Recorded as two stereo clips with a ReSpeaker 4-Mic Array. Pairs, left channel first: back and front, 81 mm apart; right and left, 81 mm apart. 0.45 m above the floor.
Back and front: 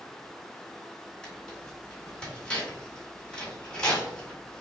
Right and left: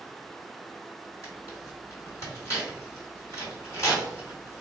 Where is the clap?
I don't hear a clap.